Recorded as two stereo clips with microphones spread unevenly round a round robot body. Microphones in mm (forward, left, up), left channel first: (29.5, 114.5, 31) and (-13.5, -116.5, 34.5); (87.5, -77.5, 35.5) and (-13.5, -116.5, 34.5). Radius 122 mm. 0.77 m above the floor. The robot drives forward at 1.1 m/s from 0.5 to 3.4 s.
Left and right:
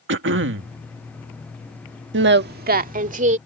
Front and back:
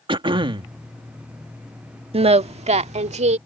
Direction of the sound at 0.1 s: 130° right.